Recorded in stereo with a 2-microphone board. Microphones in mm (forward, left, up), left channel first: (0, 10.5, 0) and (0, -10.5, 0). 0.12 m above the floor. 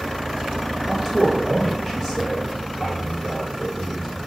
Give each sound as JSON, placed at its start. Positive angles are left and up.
{"t": 0.9, "sound": "a man speaking", "side_deg": 10, "distance_m": 1.4}